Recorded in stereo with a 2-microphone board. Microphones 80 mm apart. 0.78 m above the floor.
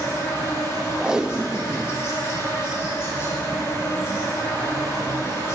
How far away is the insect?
About 5 m.